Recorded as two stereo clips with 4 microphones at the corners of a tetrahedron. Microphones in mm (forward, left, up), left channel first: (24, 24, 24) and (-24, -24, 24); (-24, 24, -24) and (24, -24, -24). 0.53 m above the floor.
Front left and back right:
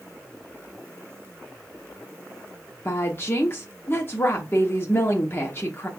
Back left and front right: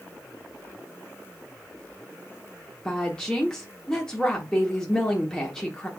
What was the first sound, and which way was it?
A woman speaking, 60° left.